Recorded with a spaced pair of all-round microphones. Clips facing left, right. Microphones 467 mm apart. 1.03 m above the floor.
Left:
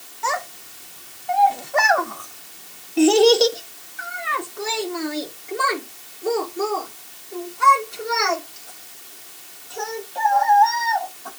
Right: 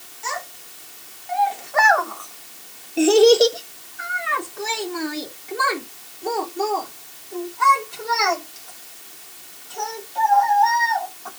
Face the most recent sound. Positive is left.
turn(degrees=-20)  # may be behind; listen again after turning